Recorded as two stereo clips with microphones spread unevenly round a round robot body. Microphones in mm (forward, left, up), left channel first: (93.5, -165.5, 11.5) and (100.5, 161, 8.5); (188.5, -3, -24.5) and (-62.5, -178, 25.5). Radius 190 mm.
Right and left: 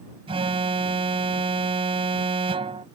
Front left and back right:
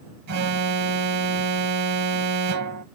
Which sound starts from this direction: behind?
An alarm, at 0.3 s.